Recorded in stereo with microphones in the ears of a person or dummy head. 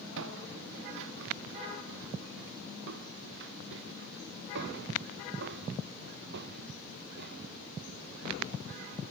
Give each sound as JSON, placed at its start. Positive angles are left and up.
{"t": 0.2, "sound": "footsteps", "side_deg": -70}